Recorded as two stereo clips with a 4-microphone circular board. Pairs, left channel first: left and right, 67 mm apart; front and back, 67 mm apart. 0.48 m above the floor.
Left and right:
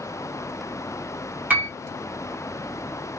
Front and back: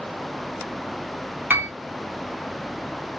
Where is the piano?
135° right, 0.9 m.